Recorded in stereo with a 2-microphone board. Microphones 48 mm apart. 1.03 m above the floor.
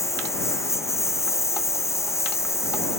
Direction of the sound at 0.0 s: 85° left.